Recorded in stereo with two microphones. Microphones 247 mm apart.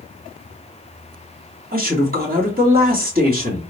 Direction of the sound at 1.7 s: 40° right (ahead or behind).